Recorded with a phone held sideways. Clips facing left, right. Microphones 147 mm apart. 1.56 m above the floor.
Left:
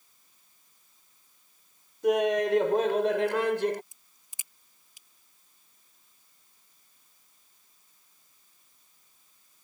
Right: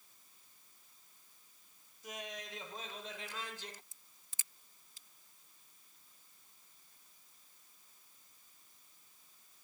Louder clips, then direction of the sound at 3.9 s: Left 1 dB; 15° left (ahead or behind).